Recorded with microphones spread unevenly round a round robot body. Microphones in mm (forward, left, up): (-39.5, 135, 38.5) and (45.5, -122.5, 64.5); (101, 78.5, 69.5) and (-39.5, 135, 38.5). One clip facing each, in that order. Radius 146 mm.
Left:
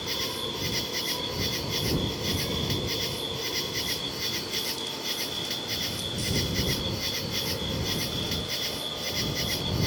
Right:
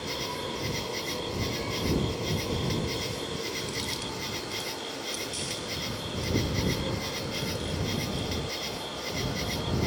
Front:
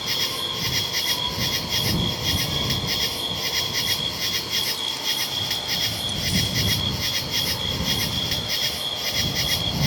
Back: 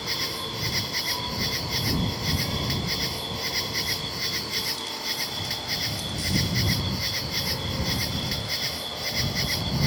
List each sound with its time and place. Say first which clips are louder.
0.0 s an insect: even, front 1 dB; 40° left